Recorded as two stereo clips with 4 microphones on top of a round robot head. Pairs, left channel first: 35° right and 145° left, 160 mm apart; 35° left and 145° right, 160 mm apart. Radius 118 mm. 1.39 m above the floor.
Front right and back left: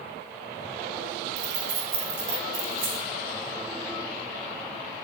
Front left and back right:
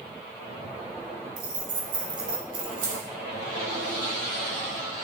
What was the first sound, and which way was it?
Keys jangling, 160° left.